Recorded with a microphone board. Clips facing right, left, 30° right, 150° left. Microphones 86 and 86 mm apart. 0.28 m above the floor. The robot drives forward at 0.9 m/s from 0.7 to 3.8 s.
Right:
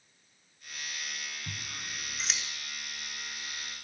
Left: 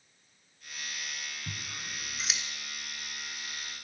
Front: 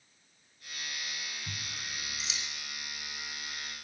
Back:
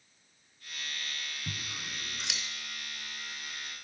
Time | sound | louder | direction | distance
1.5 | scissors | even, back 1 dB | 175° left | 1.2 m